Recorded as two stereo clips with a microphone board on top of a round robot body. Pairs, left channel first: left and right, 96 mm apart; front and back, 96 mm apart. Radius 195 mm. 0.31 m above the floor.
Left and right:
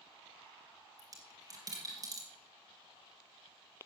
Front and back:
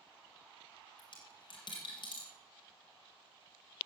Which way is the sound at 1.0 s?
40° right.